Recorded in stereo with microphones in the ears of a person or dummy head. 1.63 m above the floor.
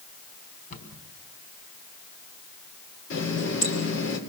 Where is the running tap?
70° left (ahead or behind), 3.5 m.